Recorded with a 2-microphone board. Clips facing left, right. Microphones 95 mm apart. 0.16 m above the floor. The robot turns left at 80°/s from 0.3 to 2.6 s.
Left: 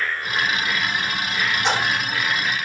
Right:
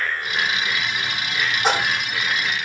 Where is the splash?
45° right (ahead or behind), 4.5 m; by 2.1 s 75° right (ahead or behind), 4.5 m.